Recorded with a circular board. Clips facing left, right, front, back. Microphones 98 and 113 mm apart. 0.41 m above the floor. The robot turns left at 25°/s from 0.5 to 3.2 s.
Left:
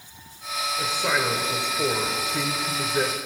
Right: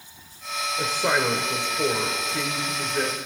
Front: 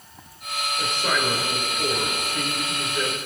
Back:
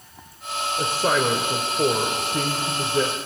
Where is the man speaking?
150° right, 1.2 m; by 3.2 s 155° left, 1.2 m.